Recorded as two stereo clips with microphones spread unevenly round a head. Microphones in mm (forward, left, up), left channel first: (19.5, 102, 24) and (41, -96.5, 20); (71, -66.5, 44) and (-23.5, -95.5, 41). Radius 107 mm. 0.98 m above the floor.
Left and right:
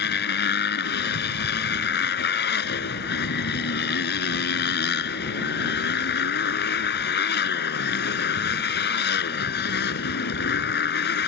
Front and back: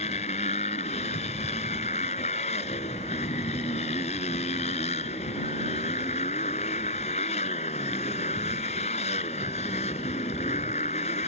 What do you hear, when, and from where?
0.0 s a motorcycle: 60° left